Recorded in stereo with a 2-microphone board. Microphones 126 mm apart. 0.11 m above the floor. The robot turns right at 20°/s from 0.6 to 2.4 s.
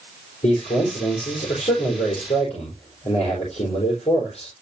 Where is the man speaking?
75° left, 4.5 m; by 4.5 s 110° left, 4.5 m.